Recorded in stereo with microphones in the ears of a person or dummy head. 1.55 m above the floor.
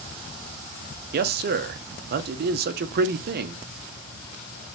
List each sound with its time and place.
1.1 s a man speaking: 55° right (ahead or behind), 0.5 m